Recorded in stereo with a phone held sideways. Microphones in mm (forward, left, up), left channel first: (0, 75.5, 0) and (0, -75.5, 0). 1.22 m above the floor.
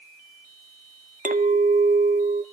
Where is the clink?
60° right (ahead or behind), 0.8 m.